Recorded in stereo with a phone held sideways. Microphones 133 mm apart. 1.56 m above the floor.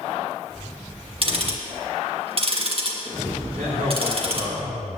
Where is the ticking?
45° right (ahead or behind), 1.6 m.